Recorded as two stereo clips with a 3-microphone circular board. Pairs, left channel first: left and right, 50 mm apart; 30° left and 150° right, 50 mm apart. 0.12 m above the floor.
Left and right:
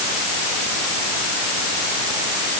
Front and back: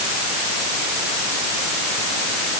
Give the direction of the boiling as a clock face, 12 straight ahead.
I don't hear boiling.